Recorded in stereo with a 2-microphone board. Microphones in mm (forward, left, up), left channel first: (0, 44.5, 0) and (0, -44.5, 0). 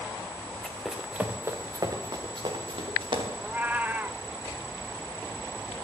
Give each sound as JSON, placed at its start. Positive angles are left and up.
{"t": 0.6, "sound": "running footsteps", "side_deg": 10, "distance_m": 1.8}
{"t": 3.4, "sound": "a cat meowing", "side_deg": -20, "distance_m": 0.5}